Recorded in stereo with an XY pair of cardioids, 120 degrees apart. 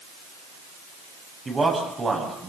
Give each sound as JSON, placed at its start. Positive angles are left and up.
{"t": 1.4, "sound": "a man speaking", "azimuth_deg": -30, "distance_m": 7.5}